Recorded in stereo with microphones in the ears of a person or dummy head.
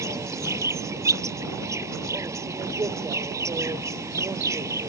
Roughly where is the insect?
Centre.